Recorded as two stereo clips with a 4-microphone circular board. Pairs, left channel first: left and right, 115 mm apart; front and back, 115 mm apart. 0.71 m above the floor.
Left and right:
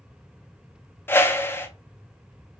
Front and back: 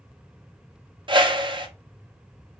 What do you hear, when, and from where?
1.1 s a whoosh: 155° left, 0.5 m